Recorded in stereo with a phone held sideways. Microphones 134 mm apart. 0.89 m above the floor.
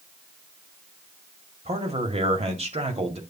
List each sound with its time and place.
1.6 s a man speaking: 50° right (ahead or behind), 1.9 m